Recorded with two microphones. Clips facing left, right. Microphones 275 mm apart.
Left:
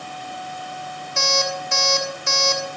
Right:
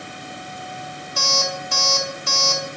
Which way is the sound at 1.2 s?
35° left (ahead or behind).